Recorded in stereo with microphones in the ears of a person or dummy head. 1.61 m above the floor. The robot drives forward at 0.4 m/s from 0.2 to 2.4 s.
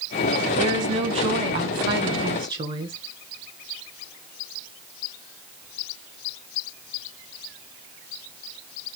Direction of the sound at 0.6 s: 45° right (ahead or behind).